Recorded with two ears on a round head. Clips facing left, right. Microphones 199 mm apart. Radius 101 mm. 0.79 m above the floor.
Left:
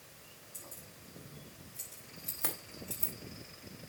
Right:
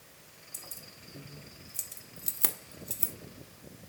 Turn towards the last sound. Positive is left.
turn(degrees=-20)  # may be behind; listen again after turning